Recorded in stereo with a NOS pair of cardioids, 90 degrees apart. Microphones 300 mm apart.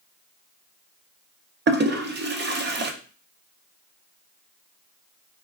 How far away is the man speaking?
No man speaking in this recording.